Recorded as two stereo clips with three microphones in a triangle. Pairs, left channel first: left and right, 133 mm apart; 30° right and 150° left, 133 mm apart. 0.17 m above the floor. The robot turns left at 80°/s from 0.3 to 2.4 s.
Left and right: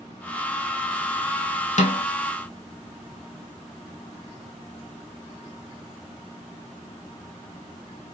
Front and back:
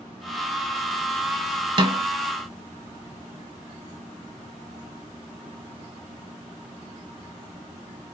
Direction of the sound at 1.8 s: 105° left.